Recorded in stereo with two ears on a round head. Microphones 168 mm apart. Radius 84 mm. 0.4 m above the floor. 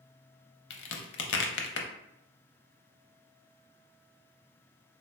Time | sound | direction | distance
0.7 | a crack | 65° left (ahead or behind) | 0.5 m